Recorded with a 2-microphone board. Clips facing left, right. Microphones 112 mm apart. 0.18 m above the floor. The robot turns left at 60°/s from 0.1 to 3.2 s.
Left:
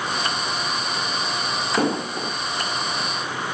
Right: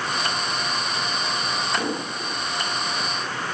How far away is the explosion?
About 5 m.